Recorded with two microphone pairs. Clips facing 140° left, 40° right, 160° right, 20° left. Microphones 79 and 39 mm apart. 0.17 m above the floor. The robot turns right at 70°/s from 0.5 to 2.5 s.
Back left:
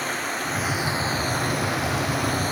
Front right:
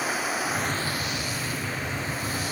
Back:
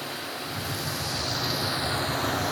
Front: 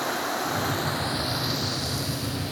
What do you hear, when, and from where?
0.0 s running water: 40° left, 2 m; by 2.5 s straight behind, 2 m